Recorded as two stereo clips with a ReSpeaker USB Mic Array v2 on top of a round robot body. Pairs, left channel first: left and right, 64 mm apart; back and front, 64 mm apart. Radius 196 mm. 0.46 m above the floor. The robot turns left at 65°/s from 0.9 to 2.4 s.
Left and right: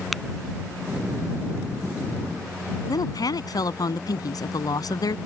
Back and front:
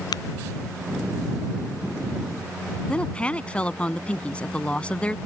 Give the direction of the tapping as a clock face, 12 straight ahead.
6 o'clock.